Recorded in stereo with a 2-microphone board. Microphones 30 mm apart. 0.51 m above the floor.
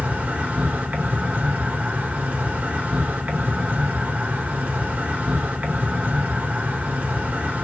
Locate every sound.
0.0 s an insect: 55° right (ahead or behind), 1.1 m